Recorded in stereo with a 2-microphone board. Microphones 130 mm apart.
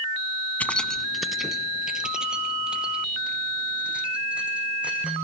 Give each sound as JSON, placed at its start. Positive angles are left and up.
{"t": 0.6, "sound": "keys jangling", "side_deg": 10, "distance_m": 0.7}